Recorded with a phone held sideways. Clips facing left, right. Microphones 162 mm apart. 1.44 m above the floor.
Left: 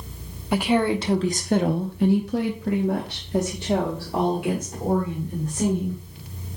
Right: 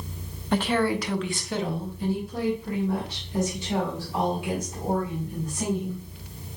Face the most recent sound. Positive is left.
turn(degrees=50)  # may be behind; listen again after turning